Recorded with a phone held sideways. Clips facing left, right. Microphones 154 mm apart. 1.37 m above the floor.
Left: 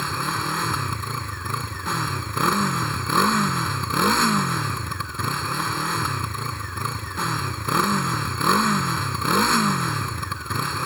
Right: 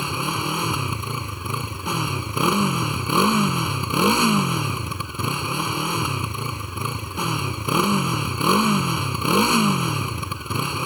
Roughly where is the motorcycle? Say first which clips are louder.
Right 2 dB; centre.